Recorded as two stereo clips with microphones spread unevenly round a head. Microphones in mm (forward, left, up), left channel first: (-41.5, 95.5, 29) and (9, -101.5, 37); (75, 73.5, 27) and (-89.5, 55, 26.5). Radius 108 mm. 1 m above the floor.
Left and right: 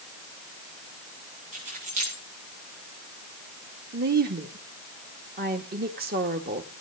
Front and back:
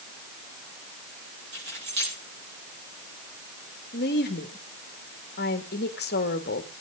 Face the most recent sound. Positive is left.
turn(degrees=-30)